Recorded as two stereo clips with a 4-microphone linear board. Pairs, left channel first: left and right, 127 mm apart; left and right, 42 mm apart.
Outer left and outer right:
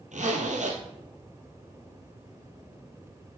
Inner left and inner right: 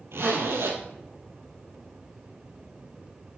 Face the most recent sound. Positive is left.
turn(degrees=-75)  # may be behind; listen again after turning